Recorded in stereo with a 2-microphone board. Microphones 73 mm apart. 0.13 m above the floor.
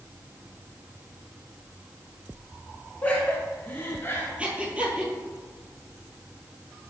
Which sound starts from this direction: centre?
Breathing, at 4.4 s.